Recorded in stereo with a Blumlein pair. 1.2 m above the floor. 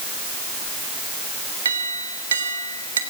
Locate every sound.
1.6 s a clink: 70° right, 3 m